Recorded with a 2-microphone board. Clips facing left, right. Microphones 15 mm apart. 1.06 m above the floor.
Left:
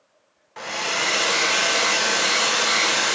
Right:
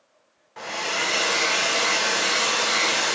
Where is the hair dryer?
25° left (ahead or behind), 0.7 m.